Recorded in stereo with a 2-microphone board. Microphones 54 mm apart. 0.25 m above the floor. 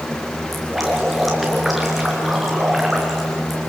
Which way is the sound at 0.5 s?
Centre (ahead or behind).